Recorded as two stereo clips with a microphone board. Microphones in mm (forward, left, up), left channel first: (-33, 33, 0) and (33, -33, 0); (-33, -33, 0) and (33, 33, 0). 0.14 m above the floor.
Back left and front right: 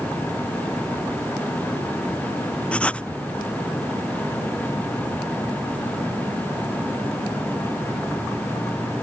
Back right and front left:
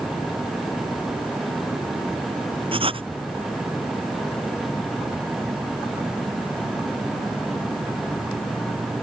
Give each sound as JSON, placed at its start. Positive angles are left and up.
{"t": 2.7, "sound": "writing", "azimuth_deg": 55}